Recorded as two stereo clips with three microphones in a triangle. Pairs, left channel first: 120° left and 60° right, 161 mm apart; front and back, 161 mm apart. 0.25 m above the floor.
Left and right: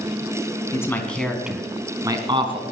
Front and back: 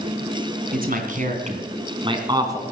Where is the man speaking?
170° right, 2.5 m; by 2.6 s 110° right, 3 m.